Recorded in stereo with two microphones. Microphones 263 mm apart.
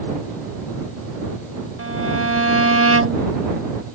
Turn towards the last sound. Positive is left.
turn(degrees=-60)  # may be behind; listen again after turning